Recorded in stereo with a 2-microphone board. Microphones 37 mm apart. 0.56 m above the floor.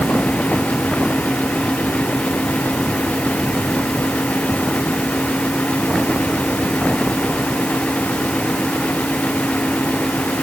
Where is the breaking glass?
I don't hear breaking glass.